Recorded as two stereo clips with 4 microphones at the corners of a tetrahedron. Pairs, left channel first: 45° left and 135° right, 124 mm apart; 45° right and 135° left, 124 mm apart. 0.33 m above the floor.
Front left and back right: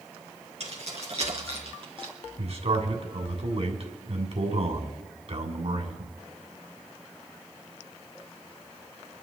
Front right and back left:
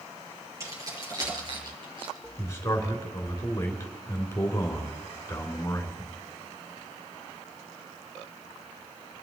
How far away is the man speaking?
About 3 m.